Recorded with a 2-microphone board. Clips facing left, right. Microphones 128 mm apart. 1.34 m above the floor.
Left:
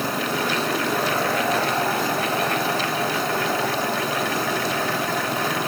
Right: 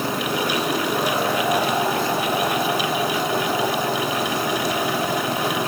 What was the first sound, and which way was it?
Only background noise.